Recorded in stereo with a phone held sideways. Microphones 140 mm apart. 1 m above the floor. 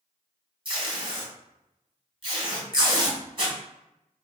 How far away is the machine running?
No machine running in this recording.